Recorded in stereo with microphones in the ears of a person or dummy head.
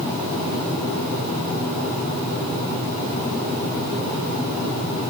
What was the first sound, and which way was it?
Only background noise.